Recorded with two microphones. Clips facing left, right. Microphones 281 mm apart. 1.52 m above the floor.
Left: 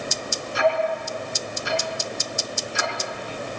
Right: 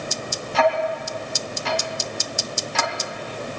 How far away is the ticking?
About 2.5 m.